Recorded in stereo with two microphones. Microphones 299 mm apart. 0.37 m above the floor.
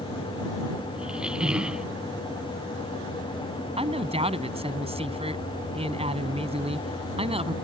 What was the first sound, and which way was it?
A squeak, 5° right (ahead or behind).